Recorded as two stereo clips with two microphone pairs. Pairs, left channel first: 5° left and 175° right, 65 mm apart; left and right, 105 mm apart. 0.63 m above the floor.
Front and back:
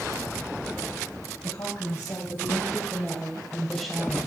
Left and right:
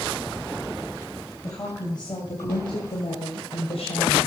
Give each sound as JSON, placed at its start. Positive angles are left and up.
{"t": 1.4, "sound": "a woman speaking", "azimuth_deg": 35, "distance_m": 3.0}